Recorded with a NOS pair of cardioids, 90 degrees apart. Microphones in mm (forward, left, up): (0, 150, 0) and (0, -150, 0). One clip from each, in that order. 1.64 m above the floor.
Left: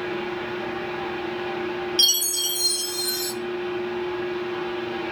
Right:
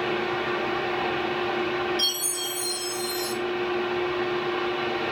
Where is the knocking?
No knocking in this recording.